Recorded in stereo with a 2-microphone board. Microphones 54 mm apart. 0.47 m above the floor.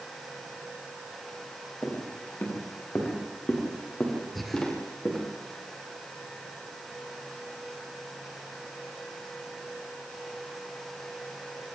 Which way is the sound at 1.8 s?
45° left (ahead or behind).